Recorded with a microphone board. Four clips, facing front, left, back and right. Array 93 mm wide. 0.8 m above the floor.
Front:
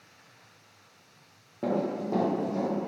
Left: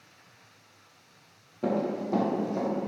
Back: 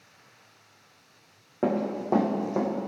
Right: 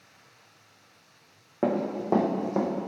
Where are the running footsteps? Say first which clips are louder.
Right 1 dB, back 2 dB; 120° right, 3.5 m; by 2.7 s 125° right, 2.5 m.